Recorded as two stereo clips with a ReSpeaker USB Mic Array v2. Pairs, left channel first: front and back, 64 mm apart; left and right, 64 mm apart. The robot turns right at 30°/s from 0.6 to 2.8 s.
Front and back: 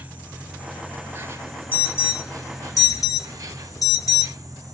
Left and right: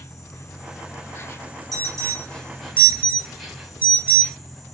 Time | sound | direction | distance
0.0 | an insect | 115° left | 0.8 m
1.7 | an alarm | 60° right | 1.1 m